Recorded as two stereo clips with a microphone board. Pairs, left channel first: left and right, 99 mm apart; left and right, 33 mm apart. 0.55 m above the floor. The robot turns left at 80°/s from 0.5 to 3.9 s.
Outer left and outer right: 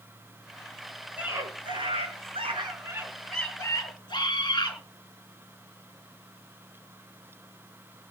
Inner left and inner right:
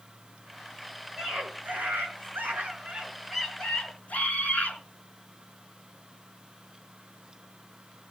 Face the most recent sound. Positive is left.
turn(degrees=130)